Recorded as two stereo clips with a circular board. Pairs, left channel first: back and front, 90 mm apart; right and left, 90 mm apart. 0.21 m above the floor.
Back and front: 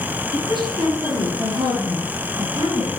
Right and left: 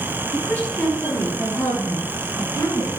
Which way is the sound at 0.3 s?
20° right.